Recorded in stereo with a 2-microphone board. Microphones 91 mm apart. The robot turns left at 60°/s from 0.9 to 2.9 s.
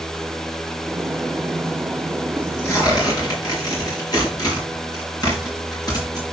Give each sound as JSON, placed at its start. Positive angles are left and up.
{"t": 2.4, "sound": "tearing paper", "side_deg": 15, "distance_m": 4.0}